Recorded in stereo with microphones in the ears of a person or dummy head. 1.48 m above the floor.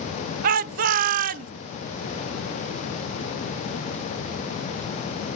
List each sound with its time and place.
0.4 s a shout: 50° right (ahead or behind), 0.7 m